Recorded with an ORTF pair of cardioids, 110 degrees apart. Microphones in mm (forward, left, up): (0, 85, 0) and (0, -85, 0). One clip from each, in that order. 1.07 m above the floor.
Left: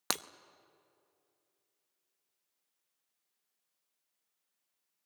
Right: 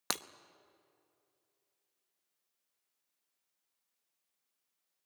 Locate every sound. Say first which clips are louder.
0.1 s breaking glass: left 2 dB; 5° left, 0.6 m